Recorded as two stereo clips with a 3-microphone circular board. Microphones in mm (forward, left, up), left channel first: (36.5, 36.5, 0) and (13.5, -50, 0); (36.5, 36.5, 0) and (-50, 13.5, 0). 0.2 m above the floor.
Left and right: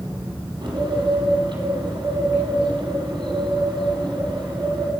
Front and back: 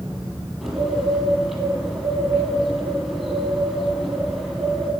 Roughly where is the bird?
Right.